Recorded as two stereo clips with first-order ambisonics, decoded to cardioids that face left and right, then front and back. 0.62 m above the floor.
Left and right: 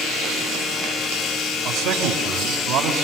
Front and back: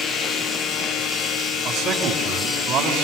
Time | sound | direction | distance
1.6 | a man speaking | 115° right | 3.5 m